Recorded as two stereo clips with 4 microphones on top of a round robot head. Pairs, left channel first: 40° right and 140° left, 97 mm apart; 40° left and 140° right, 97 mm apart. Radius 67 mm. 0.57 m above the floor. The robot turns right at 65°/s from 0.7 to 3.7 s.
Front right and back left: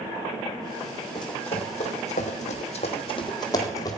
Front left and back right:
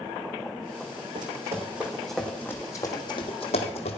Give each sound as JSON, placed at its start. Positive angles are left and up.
{"t": 1.1, "sound": "running footsteps", "azimuth_deg": -90, "distance_m": 1.8}